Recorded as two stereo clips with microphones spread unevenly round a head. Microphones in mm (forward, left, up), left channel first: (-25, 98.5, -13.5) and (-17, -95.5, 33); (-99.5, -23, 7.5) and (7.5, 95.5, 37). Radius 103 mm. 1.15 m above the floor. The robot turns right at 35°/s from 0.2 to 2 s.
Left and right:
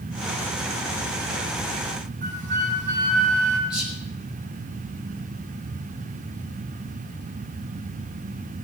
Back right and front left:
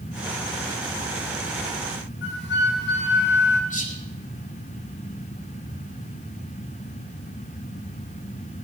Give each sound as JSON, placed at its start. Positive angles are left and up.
{"t": 2.2, "sound": "a flute", "azimuth_deg": -140, "distance_m": 3.5}
{"t": 3.7, "sound": "whispering", "azimuth_deg": -175, "distance_m": 5.0}